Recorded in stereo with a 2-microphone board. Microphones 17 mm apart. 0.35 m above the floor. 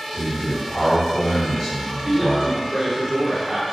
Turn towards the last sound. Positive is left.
turn(degrees=-25)  # may be behind; listen again after turning